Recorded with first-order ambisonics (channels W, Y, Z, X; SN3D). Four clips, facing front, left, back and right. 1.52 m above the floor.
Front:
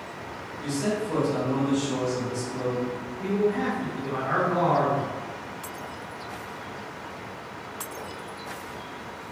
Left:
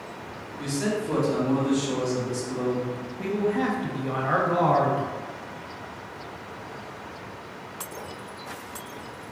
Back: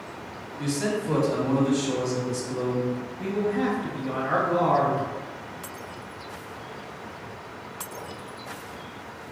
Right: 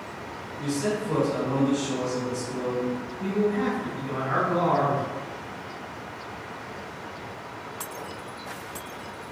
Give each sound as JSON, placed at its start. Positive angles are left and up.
{"t": 0.6, "sound": "a man speaking", "azimuth_deg": 145, "distance_m": 1.1}
{"t": 3.2, "sound": "a man speaking", "azimuth_deg": 100, "distance_m": 0.9}